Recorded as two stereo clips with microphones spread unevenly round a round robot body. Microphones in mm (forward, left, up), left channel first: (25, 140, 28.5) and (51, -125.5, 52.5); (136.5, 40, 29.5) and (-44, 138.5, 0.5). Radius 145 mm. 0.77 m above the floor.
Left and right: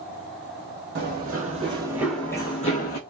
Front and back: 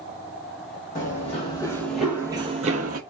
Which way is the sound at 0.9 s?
55° right.